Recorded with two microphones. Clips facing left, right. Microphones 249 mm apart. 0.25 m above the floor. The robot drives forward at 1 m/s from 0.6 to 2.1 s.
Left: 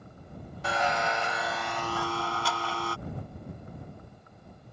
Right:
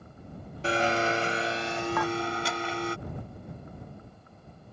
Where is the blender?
30° right (ahead or behind); by 3.0 s 20° right (ahead or behind).